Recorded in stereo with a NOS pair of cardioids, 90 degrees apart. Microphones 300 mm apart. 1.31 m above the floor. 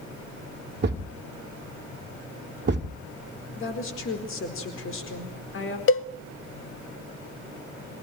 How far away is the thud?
About 1.9 m.